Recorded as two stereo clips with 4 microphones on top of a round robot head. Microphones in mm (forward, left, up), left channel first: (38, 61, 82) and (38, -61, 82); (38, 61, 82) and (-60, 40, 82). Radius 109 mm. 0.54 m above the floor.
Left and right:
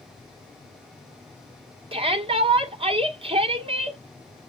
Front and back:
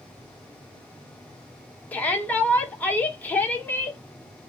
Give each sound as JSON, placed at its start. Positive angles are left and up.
{"t": 1.9, "sound": "a shout", "azimuth_deg": -60, "distance_m": 1.9}